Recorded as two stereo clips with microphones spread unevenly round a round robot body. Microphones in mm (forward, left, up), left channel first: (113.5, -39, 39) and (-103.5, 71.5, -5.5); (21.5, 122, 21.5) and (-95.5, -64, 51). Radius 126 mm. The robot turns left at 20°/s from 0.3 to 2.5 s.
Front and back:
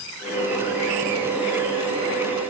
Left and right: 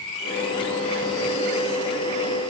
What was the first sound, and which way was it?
Only background noise.